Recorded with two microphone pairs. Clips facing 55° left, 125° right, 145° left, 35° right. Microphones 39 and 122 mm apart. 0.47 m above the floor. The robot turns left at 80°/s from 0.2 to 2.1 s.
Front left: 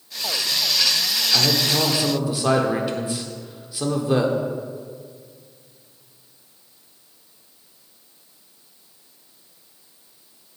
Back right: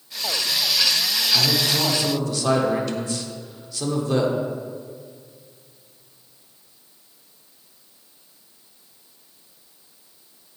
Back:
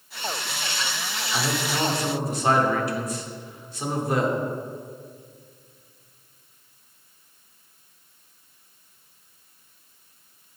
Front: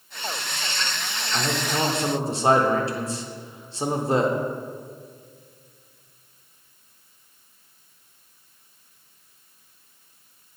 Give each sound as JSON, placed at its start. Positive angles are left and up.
{"t": 1.3, "sound": "a man speaking", "azimuth_deg": 60, "distance_m": 0.9}